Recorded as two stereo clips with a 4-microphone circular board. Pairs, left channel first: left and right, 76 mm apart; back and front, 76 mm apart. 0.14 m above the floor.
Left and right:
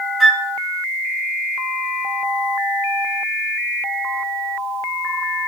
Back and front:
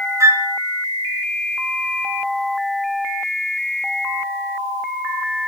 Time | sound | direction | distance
0.2 | a flute | 5° left | 2 m